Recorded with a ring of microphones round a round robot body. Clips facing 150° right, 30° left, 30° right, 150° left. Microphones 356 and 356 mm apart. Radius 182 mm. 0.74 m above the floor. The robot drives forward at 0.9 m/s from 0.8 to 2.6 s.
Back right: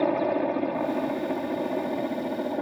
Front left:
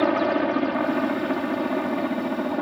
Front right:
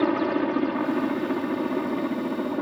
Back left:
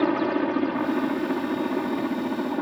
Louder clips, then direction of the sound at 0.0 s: Front left 3 dB, even; 60° left.